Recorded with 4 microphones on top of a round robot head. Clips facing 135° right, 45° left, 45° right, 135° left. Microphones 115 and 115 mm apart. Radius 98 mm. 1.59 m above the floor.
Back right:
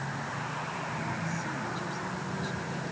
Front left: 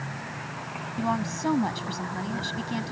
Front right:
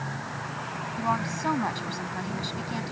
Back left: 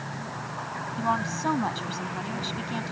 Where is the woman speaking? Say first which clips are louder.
Front left 7 dB, back left 1 dB; 50° left.